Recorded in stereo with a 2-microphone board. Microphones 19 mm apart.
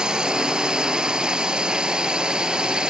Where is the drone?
45° right (ahead or behind); by 2.9 s 55° right (ahead or behind).